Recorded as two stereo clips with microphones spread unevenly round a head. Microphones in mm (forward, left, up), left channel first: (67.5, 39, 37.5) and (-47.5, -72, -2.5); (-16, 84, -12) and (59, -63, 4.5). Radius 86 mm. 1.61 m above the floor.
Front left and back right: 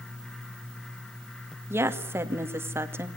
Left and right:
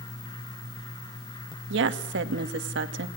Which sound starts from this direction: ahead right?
A woman speaking, at 1.7 s.